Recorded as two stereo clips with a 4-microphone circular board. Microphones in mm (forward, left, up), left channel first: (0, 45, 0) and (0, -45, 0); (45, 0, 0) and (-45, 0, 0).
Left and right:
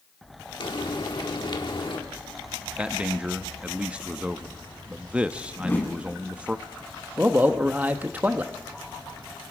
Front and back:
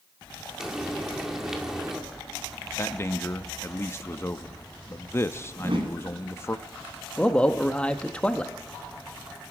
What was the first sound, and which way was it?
Frying, 95° left.